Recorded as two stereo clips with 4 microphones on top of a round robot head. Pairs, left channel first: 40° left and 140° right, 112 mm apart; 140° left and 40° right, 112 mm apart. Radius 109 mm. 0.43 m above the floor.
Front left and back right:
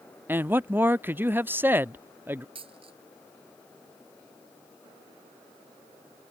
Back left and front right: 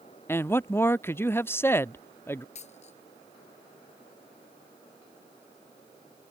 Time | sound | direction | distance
0.3 | a man speaking | 175° left | ?
2.5 | a dropped coin | 175° left | ?